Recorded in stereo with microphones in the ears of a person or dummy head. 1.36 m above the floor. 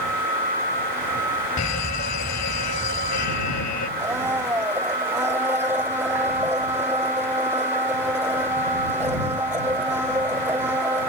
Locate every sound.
1.6 s a fire alarm: 55° left (ahead or behind)
4.0 s a blender: 15° right (ahead or behind)